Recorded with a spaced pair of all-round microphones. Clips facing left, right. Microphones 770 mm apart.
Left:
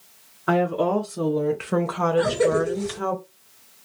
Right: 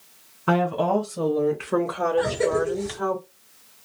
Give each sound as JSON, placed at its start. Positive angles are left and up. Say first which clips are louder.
{"t": 0.5, "sound": "a woman speaking", "louder": "left 1 dB", "side_deg": -40, "distance_m": 0.7}
{"t": 2.2, "sound": "a cough", "louder": "left 3 dB", "side_deg": 40, "distance_m": 1.9}